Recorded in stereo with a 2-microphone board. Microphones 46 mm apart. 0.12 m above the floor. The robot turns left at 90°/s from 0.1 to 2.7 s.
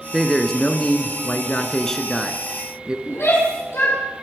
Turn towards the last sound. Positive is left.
turn(degrees=70)  # may be behind; listen again after turning